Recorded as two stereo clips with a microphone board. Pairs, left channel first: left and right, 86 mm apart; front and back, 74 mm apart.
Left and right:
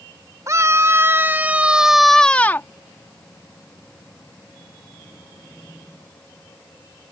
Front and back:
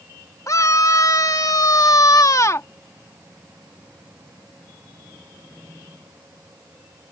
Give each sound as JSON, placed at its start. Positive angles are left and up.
{"t": 0.5, "sound": "a scream", "azimuth_deg": -40}